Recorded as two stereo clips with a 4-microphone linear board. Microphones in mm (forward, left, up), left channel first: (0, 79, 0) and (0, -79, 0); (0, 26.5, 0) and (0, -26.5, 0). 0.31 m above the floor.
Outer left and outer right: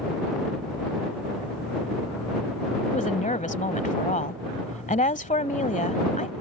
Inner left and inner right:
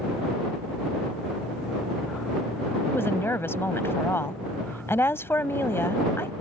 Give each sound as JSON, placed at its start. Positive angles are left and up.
{"t": 2.9, "sound": "a woman speaking", "side_deg": 50}